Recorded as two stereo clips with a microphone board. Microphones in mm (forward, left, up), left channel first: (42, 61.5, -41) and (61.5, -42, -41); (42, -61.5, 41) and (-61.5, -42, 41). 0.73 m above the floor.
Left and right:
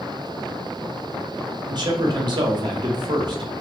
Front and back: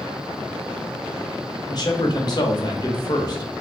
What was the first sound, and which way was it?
A man speaking, 50° right.